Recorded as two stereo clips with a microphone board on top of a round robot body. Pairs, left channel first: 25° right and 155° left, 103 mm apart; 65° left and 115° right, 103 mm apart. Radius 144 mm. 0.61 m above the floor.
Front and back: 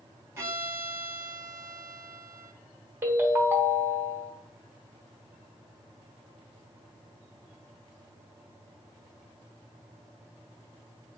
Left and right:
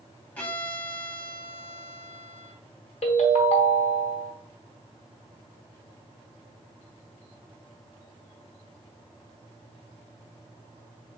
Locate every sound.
0.4 s a violin: 125° left, 1.2 m
3.0 s a ringtone: 90° left, 1.0 m